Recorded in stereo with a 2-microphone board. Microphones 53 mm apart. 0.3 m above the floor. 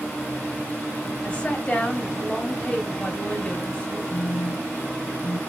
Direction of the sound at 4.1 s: 85° left.